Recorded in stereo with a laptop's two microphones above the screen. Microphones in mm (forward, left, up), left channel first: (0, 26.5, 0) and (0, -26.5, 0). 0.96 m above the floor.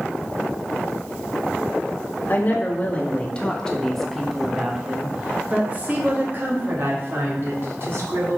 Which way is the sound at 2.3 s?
40° left (ahead or behind).